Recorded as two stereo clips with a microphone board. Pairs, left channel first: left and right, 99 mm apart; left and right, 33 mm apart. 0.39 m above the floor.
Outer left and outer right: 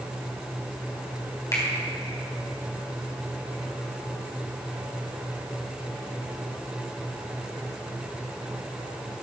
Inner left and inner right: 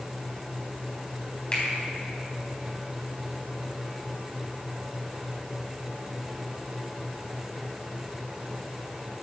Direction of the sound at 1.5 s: 35° left (ahead or behind).